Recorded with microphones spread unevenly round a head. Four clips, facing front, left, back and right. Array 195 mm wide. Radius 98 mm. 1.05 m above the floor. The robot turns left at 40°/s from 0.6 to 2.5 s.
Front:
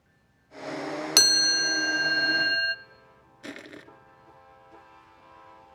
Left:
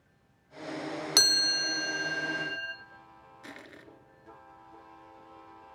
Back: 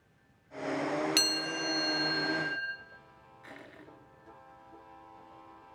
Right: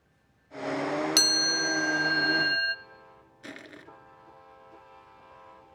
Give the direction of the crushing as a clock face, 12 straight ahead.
12 o'clock.